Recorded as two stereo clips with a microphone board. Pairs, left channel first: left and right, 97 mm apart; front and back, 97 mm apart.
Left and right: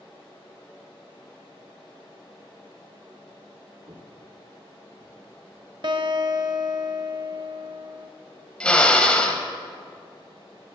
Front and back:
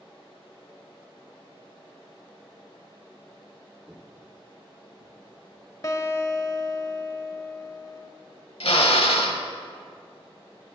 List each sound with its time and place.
3.9 s footsteps: 95° right, 1.1 m; by 5.2 s straight behind, 1.7 m
5.8 s a guitar: 55° right, 0.7 m
8.6 s a drill: 10° left, 0.8 m